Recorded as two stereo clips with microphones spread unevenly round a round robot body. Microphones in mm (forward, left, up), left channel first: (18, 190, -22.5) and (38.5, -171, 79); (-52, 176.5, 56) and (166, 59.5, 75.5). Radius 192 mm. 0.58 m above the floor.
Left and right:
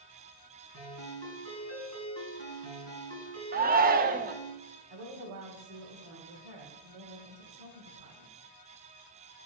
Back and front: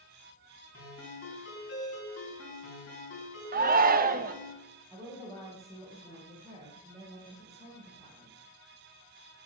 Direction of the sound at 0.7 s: 145° right.